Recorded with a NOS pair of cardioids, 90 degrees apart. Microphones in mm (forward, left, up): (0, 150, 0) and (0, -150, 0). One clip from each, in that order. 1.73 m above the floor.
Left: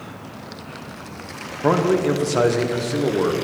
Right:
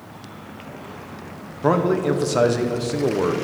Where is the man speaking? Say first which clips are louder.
Left 1 dB; 5° right, 1.2 m.